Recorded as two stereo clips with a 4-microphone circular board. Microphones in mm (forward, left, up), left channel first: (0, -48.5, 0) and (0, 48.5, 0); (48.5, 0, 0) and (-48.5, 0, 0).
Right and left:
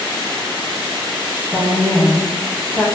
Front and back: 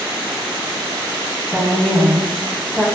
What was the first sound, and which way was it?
A woman speaking, 70° right.